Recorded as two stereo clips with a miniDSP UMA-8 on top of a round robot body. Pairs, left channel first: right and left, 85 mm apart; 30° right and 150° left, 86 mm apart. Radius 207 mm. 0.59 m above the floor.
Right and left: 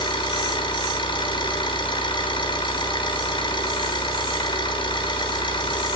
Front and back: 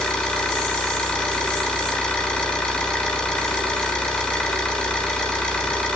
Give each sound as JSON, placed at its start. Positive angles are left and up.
{"t": 0.0, "sound": "an engine running", "azimuth_deg": -105, "distance_m": 6.5}